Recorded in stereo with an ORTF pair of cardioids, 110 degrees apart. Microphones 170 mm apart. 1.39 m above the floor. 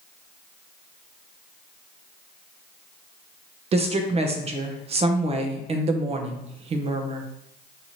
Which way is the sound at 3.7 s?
35° right.